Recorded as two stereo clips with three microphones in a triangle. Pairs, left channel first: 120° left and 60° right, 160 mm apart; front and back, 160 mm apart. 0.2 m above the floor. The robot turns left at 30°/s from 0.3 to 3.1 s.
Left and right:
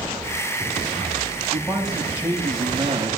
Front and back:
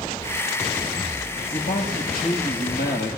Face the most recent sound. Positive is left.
turn(degrees=-10)